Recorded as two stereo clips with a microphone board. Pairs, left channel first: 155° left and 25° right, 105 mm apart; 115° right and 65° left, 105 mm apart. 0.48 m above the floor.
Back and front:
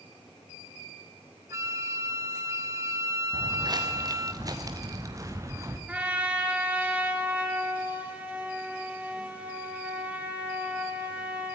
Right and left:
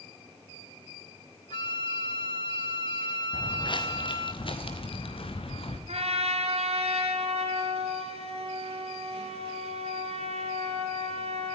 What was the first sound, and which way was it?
A flute, 80° right.